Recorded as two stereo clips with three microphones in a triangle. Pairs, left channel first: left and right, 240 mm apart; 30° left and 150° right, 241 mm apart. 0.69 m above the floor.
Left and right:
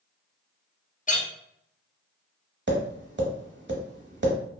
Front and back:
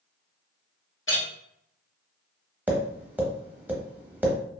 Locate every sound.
1.1 s a clink: 40° left, 0.7 m
2.7 s tapping: 65° right, 0.7 m